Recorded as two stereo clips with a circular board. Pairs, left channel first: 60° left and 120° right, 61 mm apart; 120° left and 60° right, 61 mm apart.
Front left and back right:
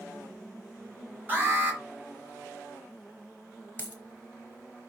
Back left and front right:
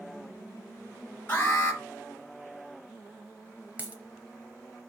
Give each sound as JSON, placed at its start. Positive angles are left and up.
{"t": 1.3, "sound": "an alarm", "azimuth_deg": 180, "distance_m": 4.5}
{"t": 3.8, "sound": "a dropped coin", "azimuth_deg": 5, "distance_m": 0.9}